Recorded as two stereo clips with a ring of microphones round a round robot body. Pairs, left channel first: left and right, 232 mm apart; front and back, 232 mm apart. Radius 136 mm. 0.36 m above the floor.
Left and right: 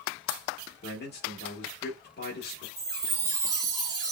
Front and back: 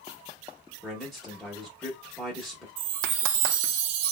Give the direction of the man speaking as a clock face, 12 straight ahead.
9 o'clock.